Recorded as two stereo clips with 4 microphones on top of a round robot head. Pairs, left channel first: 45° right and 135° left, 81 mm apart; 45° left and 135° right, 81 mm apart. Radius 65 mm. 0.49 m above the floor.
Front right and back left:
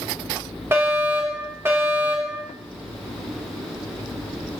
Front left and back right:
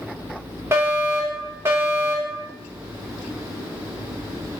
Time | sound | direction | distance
0.7 | a fire alarm | straight behind | 3 m